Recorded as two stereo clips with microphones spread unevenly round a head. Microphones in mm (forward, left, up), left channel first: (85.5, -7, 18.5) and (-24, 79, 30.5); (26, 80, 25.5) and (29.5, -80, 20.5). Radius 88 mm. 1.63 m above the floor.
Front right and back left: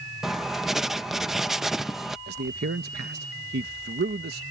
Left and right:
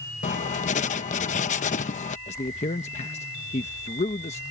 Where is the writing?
60° left.